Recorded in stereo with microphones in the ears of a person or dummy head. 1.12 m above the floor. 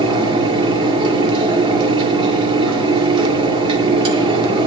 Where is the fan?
25° right (ahead or behind), 2 m.